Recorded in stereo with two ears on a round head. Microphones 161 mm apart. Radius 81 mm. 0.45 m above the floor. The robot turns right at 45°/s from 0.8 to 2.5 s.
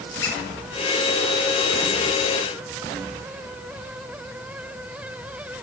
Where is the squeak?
70° left (ahead or behind), 2 m.